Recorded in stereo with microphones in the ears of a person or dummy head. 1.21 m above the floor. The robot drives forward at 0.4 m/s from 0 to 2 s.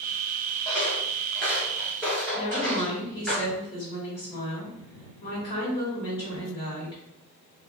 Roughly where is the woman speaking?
Left.